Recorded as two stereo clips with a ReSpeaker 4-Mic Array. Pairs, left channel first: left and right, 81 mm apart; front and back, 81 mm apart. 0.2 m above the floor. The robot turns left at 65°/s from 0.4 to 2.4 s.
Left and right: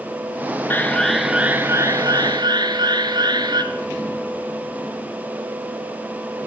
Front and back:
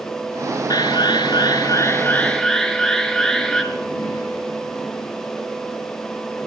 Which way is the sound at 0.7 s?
30° left.